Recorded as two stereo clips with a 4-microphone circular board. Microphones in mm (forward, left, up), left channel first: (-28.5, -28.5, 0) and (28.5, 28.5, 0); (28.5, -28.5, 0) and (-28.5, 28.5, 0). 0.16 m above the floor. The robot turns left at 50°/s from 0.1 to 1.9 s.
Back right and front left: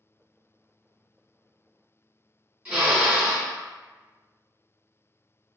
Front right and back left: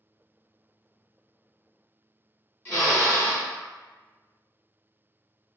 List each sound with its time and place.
2.6 s a drill: 20° right, 1.9 m